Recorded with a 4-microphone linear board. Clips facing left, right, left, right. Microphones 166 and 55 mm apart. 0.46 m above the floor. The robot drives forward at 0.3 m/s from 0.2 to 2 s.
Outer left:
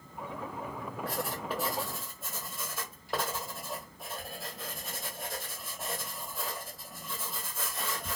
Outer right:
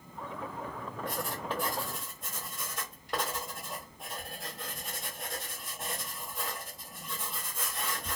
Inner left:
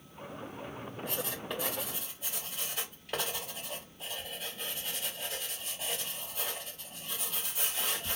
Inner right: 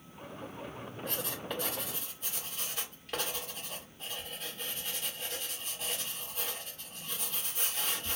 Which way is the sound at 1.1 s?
5° left (ahead or behind).